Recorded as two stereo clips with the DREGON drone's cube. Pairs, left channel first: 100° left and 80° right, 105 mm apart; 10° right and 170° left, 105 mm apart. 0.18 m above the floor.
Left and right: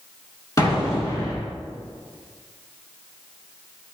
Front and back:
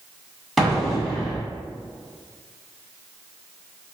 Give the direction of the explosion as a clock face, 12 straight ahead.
9 o'clock.